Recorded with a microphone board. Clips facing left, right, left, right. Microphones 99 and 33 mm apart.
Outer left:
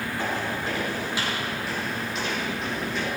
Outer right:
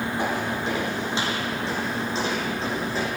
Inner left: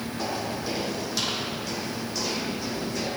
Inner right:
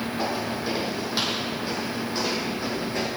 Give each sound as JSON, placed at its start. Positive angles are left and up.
{"t": 0.2, "sound": "footsteps", "side_deg": -20, "distance_m": 4.0}